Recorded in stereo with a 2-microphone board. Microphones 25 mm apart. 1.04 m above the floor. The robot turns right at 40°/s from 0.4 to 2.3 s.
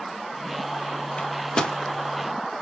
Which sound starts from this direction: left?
A microwave, at 1.2 s.